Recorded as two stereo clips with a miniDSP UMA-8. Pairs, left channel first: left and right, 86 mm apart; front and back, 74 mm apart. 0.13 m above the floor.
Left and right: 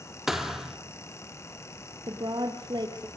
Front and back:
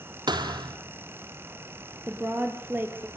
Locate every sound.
0.3 s a thud: 175° right, 1.9 m
2.1 s a woman speaking: 120° right, 3.5 m